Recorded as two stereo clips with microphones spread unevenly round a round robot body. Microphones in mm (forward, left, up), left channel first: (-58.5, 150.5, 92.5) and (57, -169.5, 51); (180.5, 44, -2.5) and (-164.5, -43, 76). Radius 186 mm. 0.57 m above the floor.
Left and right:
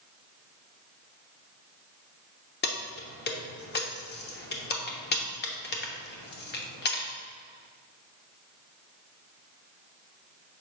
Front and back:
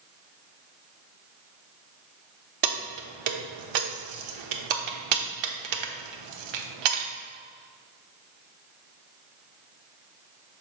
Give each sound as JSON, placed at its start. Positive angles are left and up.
{"t": 2.6, "sound": "keys jangling", "azimuth_deg": 175, "distance_m": 0.9}